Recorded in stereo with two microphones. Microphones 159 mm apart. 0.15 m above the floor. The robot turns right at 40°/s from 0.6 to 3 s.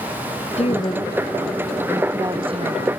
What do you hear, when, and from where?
0.6 s a woman speaking: 140° left; by 2.9 s 130° right